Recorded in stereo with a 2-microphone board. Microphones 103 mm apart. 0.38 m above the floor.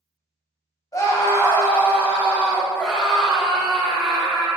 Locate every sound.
0.9 s a scream: 35° left (ahead or behind), 2.5 m; by 4.5 s 5° right (ahead or behind), 5 m